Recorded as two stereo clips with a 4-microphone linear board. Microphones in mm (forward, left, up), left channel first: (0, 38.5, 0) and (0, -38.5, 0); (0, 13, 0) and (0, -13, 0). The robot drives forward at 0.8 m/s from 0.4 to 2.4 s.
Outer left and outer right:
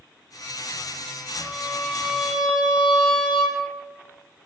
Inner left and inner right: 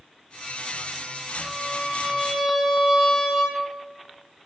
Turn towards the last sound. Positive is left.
turn(degrees=0)  # may be behind; listen again after turning